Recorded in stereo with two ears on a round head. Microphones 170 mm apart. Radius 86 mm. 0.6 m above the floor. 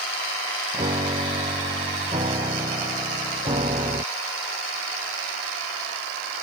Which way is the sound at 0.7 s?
25° right (ahead or behind).